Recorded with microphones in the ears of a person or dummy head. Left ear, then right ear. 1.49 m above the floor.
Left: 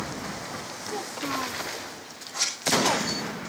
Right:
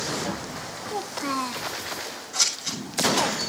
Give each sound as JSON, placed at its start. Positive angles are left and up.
{"t": 0.9, "sound": "a child speaking", "side_deg": -25, "distance_m": 0.6}
{"t": 2.3, "sound": "scissors", "side_deg": -70, "distance_m": 9.0}